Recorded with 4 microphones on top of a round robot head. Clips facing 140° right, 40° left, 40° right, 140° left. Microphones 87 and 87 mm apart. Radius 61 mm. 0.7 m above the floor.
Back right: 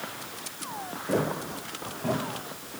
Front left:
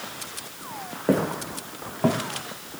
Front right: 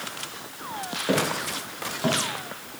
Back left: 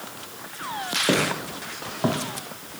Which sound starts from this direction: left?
Footsteps, at 1.1 s.